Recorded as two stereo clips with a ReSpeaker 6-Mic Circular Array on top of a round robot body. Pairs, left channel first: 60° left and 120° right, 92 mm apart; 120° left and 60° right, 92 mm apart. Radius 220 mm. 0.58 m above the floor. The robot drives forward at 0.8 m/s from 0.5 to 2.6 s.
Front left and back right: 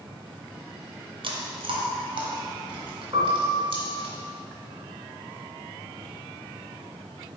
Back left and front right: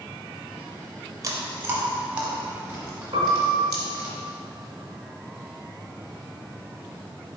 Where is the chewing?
110° right, 1.2 m; by 4.1 s 145° right, 1.9 m.